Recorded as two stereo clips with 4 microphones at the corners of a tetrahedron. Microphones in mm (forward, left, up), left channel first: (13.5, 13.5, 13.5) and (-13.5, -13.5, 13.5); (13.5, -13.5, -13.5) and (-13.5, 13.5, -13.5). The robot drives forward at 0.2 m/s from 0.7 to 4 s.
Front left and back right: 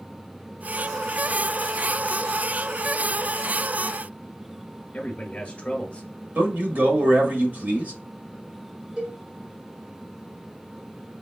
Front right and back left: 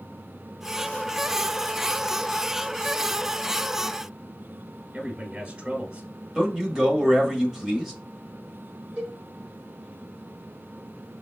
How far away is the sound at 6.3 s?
About 1.3 m.